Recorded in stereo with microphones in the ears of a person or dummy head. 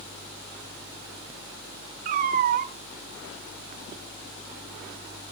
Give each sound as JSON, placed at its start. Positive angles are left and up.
{"t": 2.0, "sound": "a cat meowing", "side_deg": -45, "distance_m": 1.0}